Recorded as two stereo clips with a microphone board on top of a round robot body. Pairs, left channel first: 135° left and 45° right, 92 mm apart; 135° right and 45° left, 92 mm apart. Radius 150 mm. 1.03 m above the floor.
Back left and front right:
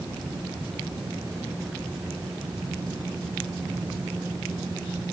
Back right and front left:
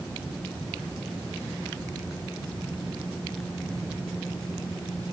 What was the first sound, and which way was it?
Only background noise.